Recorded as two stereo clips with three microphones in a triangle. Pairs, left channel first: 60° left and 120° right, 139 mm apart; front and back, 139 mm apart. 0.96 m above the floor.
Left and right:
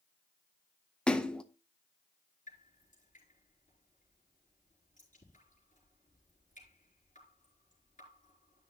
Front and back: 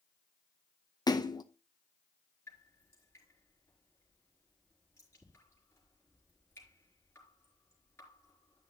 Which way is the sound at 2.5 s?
70° left.